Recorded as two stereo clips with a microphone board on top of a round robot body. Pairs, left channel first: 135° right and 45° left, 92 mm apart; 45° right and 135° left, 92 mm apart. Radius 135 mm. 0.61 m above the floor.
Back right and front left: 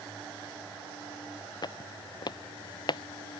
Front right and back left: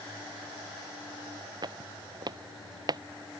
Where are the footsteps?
Straight behind.